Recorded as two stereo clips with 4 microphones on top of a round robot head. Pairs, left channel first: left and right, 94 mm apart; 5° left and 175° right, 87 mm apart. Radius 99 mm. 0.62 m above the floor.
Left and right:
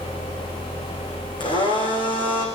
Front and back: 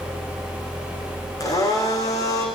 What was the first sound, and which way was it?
A blender, 55° left.